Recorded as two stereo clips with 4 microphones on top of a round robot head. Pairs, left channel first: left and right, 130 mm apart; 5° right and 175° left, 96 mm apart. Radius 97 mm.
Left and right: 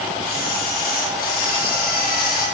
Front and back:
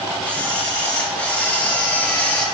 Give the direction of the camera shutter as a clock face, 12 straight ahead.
10 o'clock.